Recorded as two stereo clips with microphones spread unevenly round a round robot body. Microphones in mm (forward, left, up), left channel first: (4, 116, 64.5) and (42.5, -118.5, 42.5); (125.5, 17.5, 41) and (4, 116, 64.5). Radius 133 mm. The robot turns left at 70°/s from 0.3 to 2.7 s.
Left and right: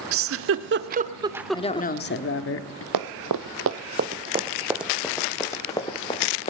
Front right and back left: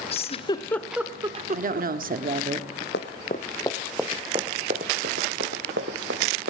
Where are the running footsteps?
90° right, 1.1 m; by 6.5 s 165° left, 2.5 m.